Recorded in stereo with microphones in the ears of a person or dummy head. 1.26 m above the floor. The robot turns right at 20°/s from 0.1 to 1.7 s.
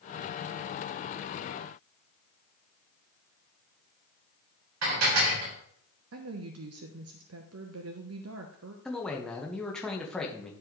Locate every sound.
4.8 s dishes clattering: 85° right, 3.5 m
6.1 s a woman speaking: 70° right (ahead or behind), 0.9 m
8.8 s a man speaking: 5° left (ahead or behind), 1.4 m